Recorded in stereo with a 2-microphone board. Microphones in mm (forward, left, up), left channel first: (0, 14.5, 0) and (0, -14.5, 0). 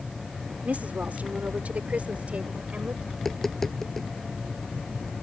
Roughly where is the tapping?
Centre.